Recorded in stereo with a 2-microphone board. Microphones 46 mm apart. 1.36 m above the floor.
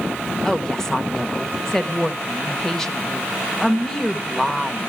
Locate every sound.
0.5 s a woman speaking: 10° left (ahead or behind), 1.4 m